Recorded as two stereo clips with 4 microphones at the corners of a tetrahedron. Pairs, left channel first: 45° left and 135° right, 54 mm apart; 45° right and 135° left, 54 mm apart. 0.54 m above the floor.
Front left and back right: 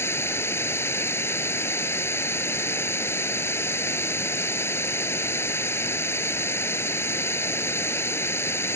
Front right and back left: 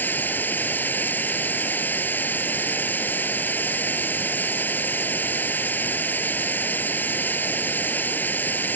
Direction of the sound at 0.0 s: 10° left.